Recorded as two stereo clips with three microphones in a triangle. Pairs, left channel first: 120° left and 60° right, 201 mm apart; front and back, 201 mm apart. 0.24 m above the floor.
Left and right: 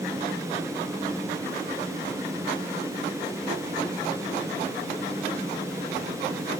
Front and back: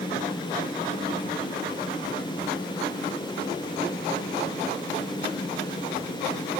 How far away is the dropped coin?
I don't hear a dropped coin.